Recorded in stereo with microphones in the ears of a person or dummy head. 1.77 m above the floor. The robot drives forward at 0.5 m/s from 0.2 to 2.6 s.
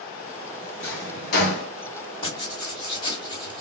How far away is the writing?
About 2.5 m.